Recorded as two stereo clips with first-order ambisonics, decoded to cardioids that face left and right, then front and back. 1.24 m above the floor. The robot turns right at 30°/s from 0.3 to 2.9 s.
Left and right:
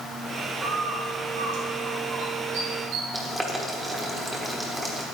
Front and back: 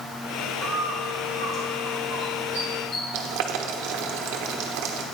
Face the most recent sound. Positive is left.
turn(degrees=-175)